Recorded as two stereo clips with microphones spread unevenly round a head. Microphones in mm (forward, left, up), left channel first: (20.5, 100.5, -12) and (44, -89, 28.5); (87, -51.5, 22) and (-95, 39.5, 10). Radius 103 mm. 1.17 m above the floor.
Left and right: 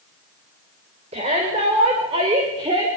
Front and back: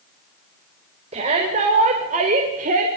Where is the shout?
145° right, 6 m; by 2.9 s 155° right, 5 m.